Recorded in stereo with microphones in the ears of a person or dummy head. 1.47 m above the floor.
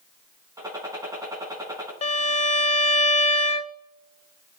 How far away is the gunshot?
About 5.5 m.